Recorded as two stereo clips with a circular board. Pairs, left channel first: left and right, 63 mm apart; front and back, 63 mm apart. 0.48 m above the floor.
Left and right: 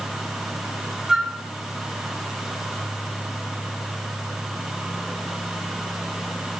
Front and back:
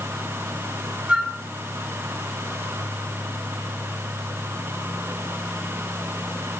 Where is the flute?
155° right, 1.0 m.